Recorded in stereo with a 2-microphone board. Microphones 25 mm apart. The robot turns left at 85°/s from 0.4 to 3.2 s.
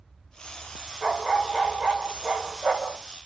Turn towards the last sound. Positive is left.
turn(degrees=-160)